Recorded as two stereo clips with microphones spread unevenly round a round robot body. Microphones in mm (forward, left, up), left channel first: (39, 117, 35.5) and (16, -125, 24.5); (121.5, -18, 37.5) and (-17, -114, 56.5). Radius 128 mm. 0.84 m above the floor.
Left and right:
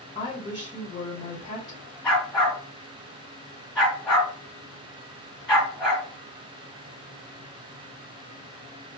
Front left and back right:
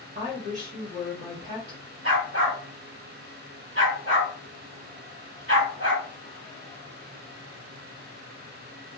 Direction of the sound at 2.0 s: 175° left.